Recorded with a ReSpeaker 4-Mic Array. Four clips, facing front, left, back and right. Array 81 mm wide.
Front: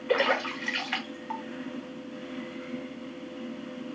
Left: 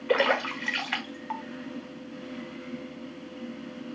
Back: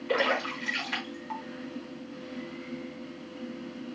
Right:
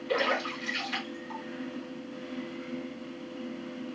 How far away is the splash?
About 1.2 m.